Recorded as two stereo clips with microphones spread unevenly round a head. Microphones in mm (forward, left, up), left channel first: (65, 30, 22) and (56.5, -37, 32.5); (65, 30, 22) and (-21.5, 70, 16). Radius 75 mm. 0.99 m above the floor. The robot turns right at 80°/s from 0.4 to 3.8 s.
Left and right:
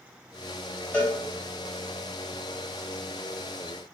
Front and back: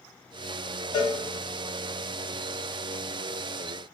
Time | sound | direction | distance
0.9 | a cowbell | 20° left | 1.5 m